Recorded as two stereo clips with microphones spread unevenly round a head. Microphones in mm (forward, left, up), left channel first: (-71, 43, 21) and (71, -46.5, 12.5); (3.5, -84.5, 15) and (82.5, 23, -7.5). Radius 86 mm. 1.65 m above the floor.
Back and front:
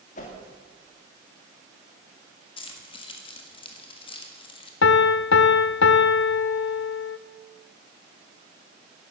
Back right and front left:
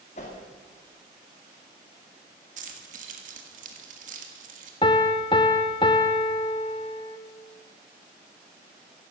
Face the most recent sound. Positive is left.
turn(degrees=165)